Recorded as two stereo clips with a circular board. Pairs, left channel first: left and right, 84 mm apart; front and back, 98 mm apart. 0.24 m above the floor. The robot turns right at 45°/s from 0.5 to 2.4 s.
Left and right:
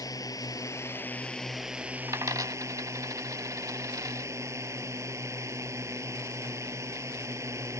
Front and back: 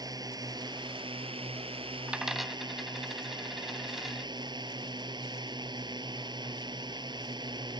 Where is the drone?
130° left; by 7.8 s 145° right.